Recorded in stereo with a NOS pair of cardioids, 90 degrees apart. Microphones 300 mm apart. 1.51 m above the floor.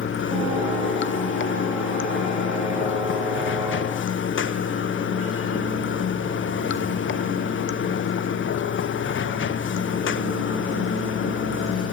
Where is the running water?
40° left, 0.8 m.